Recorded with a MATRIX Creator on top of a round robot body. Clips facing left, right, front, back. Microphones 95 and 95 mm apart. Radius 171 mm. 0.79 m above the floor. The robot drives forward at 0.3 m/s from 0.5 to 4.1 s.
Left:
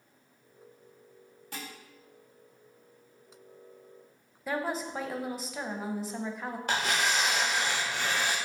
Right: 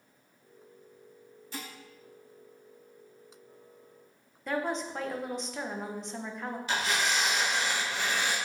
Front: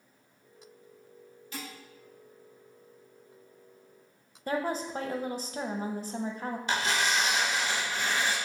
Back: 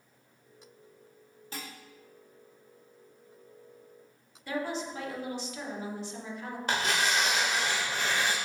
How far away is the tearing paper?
About 0.8 m.